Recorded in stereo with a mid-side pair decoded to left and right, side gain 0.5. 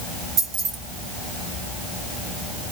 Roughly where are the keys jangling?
Ahead right.